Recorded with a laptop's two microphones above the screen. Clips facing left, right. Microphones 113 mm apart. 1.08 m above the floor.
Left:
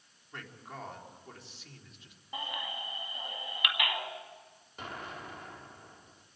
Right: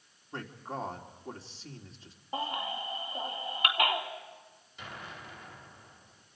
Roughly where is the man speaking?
Right.